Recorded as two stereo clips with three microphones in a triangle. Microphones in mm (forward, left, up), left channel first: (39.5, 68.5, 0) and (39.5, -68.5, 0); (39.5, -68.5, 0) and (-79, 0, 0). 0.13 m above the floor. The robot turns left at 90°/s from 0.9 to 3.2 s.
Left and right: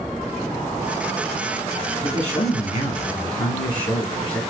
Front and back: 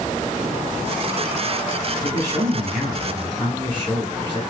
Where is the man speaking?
130° left, 1.6 m; by 4.4 s 25° left, 1.6 m.